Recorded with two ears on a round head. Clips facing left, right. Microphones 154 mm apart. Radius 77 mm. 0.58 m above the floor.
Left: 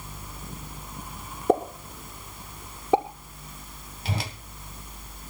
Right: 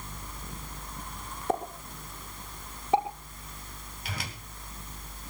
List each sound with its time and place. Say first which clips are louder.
1.5 s a pop: left 8 dB; 80° left, 6.5 m
4.0 s a whoosh: left 7 dB; 25° left (ahead or behind), 1.7 m